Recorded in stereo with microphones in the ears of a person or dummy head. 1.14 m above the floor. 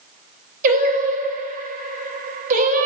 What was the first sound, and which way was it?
Singing, 45° right (ahead or behind).